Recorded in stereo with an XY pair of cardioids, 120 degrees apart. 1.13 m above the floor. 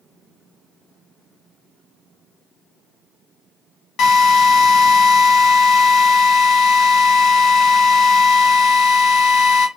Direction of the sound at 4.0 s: 65° left.